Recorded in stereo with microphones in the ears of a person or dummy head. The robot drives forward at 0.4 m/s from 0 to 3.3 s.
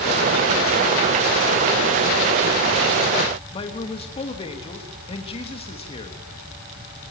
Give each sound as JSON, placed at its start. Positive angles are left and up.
{"t": 3.5, "sound": "a man speaking", "side_deg": 35, "distance_m": 3.0}